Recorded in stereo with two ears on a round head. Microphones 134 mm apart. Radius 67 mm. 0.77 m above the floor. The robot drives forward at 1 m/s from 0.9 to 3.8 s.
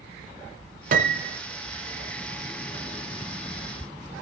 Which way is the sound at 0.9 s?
65° right (ahead or behind).